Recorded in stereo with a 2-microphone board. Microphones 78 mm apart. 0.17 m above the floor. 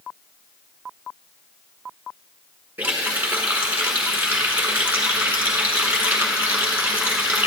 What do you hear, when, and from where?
2.8 s a running tap: 20° right (ahead or behind), 1.2 m